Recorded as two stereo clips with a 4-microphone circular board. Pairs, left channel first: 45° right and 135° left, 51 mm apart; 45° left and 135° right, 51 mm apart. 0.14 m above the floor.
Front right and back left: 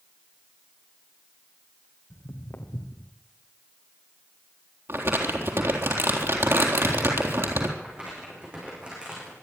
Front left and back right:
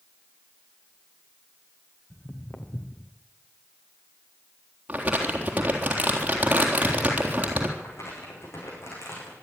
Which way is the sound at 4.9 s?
165° left.